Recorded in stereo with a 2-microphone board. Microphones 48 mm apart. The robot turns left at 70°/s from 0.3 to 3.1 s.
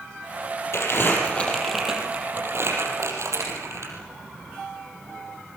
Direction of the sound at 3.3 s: 70° right (ahead or behind).